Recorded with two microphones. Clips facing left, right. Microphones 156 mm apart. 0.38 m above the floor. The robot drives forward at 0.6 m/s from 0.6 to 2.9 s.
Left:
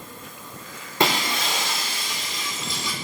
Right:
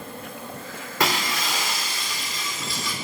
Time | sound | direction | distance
0.0 | an insect | 60° right (ahead or behind) | 0.9 m
1.0 | breaking glass | 25° left (ahead or behind) | 4 m